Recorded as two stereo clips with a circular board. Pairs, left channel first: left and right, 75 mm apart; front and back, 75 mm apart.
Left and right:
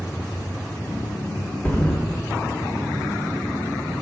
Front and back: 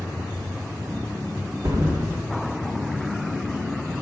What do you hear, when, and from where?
1.6 s a thud: 155° left, 1.8 m